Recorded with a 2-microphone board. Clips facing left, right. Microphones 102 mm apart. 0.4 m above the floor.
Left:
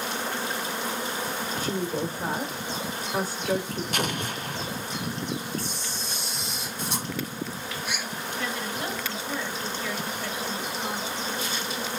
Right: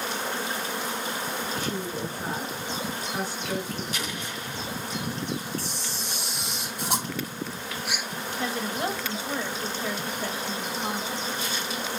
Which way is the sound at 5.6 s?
85° right.